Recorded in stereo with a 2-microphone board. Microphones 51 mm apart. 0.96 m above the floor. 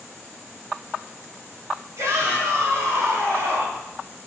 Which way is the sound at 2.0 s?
80° right.